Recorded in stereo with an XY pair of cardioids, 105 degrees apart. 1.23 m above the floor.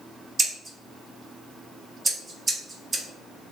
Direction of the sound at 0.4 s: 30° right.